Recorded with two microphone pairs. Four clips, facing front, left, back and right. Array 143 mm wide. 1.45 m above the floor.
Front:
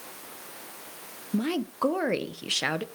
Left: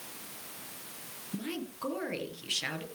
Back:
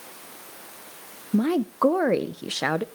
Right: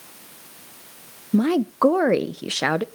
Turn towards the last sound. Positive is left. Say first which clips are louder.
# right 19 dB, back 6 dB
turn(degrees=-115)